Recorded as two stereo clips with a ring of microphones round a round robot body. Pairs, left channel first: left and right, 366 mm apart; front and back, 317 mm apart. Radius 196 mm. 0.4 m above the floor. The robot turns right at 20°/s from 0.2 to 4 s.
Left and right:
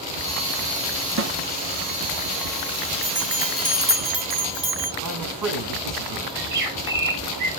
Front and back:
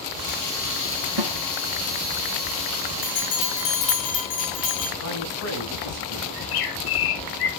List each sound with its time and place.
1.2 s a snare drum: 145° right, 0.6 m
3.0 s a bell: 35° right, 3 m; by 4.9 s 15° right, 3 m
5.0 s a man speaking: 55° right, 4 m
6.3 s a bird: 25° right, 5 m